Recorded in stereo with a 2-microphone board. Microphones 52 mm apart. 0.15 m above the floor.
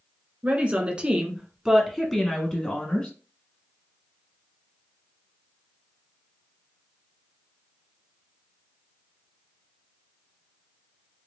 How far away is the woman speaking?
About 1.8 m.